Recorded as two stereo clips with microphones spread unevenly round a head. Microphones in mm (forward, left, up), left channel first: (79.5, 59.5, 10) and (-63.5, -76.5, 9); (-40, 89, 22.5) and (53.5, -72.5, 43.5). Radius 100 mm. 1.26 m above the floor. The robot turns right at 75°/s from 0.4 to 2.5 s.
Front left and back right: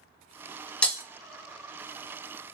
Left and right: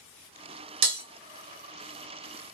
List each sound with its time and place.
0.8 s breaking glass: 40° right, 0.8 m; by 1.0 s 25° right, 0.8 m